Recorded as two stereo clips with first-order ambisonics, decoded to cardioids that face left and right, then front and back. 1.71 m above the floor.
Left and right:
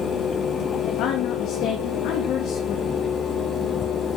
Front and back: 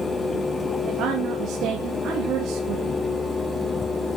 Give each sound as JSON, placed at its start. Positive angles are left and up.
{"t": 0.8, "sound": "a woman speaking", "azimuth_deg": 130, "distance_m": 3.5}